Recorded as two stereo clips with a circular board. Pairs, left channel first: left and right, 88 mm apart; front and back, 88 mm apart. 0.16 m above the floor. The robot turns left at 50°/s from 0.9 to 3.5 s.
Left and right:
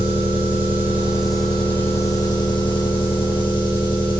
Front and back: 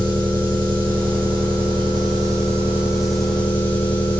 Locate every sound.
0.0 s an engine running: 160° right, 4.5 m; by 4.2 s 70° left, 4.5 m